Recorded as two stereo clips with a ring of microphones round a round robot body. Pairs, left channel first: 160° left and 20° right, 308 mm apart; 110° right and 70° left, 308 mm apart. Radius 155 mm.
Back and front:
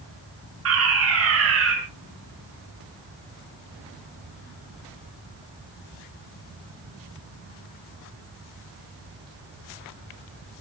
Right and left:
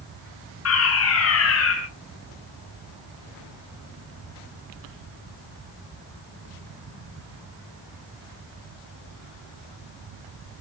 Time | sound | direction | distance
0.7 | a fire alarm | 70° right | 6.5 m